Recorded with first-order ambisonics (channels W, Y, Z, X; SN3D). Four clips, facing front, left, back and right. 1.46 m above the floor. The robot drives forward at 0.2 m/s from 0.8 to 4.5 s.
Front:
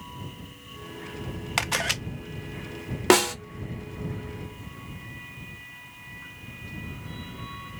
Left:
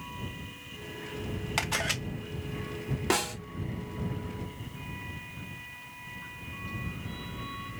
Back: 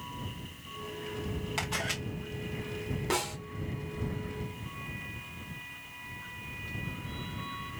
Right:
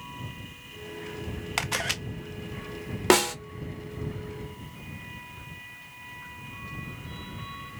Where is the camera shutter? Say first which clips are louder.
Right 1 dB, front 8 dB; 15° right, 0.6 m; by 2.0 s 20° right, 0.5 m.